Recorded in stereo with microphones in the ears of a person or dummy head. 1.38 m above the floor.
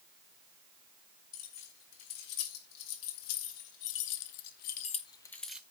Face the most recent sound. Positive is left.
turn(degrees=-10)  # may be behind; listen again after turning